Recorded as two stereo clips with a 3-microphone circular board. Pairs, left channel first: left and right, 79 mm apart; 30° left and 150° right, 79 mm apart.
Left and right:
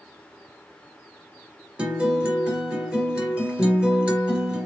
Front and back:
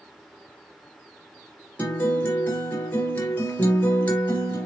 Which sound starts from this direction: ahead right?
A guitar, at 1.8 s.